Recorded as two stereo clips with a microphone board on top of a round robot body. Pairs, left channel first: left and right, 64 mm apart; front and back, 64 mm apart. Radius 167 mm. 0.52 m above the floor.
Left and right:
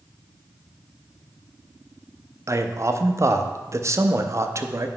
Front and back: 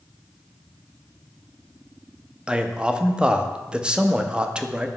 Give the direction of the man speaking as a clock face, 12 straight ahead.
4 o'clock.